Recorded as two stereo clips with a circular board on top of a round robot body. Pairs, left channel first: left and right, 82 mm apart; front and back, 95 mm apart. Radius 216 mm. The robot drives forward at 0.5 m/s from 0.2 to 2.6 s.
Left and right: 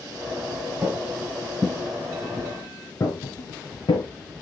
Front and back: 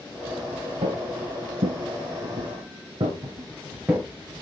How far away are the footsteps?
About 0.8 m.